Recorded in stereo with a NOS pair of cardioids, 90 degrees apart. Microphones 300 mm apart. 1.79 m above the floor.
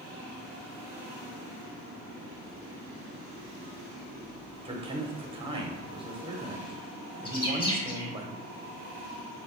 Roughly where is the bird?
Ahead.